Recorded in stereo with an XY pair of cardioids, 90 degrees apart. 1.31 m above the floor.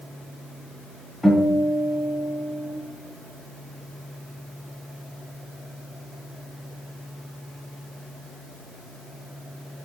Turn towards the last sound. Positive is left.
turn(degrees=5)